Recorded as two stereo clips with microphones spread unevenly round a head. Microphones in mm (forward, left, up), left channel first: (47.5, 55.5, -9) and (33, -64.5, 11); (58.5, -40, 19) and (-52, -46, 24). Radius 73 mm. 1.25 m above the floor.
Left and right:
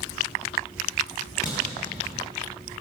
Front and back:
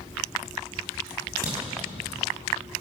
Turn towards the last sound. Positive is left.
turn(degrees=155)